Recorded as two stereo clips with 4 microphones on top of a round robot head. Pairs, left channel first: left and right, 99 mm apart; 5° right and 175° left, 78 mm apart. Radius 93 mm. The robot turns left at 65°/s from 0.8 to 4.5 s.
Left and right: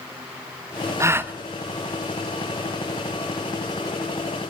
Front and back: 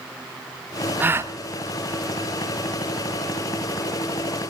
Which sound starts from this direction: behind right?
A gasp, at 1.0 s.